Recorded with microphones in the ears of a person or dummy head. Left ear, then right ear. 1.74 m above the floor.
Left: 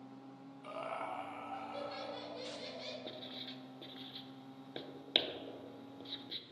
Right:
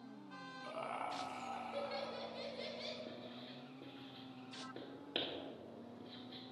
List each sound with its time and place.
0.6 s laughter: 5° left (ahead or behind), 0.7 m; by 3.0 s 25° right (ahead or behind), 2 m
3.1 s writing: 45° left (ahead or behind), 0.8 m